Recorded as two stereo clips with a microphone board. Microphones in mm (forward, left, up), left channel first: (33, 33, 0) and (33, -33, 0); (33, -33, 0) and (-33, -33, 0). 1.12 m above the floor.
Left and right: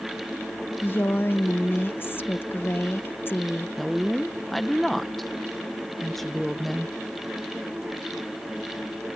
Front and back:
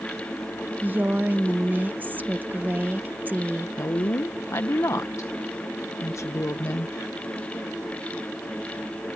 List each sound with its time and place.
0.8 s a woman speaking: 130° left
3.8 s a woman speaking: 5° left